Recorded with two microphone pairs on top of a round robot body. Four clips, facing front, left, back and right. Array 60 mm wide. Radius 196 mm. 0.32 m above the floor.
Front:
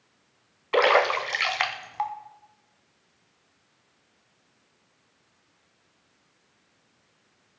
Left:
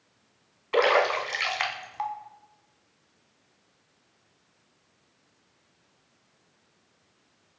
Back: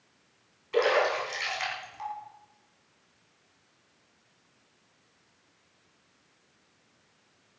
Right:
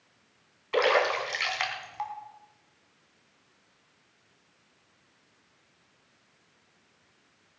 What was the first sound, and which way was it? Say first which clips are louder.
A splash: left 2 dB, front 5 dB; 5° left.